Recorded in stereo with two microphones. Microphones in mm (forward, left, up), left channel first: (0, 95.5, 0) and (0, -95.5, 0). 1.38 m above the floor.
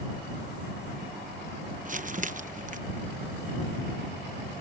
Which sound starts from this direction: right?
Crumpling, at 1.9 s.